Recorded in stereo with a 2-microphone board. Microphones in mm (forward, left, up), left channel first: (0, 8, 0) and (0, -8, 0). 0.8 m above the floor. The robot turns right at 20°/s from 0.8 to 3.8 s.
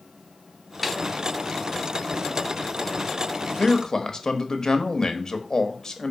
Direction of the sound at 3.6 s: 40° left (ahead or behind).